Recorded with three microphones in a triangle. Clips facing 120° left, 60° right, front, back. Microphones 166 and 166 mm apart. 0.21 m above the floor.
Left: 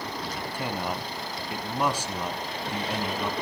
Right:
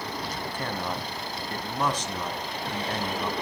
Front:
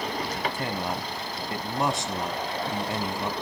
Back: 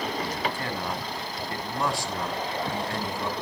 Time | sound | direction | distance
0.3 | a man speaking | 50° left | 1.5 m